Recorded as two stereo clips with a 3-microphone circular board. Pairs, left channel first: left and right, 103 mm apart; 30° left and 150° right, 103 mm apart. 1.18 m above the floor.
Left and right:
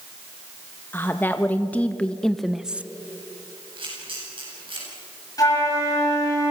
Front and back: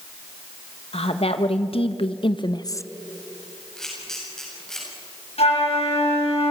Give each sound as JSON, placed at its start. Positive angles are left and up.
{"t": 0.9, "sound": "a woman speaking", "azimuth_deg": 20, "distance_m": 1.6}
{"t": 3.8, "sound": "a camera shutter", "azimuth_deg": -55, "distance_m": 8.0}
{"t": 5.4, "sound": "a flute", "azimuth_deg": 35, "distance_m": 6.5}